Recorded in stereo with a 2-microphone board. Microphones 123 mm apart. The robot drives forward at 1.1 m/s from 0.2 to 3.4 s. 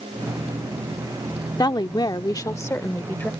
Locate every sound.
1.6 s a woman speaking: 30° left (ahead or behind); by 3.3 s 15° left (ahead or behind)